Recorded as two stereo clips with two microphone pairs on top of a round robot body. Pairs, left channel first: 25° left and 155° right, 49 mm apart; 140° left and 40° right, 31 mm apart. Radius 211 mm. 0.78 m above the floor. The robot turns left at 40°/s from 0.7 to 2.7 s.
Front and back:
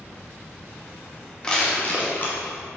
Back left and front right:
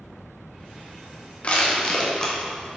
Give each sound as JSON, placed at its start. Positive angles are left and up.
{"t": 1.4, "sound": "crushing", "azimuth_deg": 95, "distance_m": 2.0}